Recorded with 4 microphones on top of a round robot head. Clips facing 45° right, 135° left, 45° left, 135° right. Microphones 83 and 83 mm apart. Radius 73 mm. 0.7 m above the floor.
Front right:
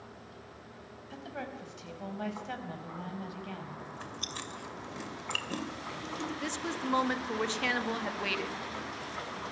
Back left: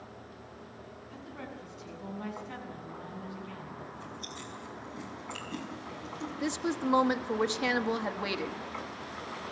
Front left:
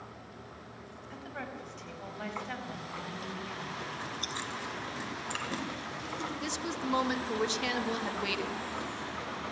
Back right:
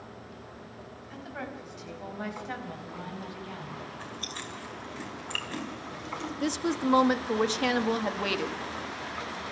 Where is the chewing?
25° right, 2.5 m.